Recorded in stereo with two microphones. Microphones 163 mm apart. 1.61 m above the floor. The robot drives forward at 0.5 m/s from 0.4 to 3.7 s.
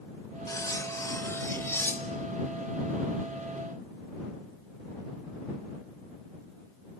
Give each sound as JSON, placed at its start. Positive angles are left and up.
{"t": 0.5, "sound": "cutlery clinking", "side_deg": 20, "distance_m": 1.0}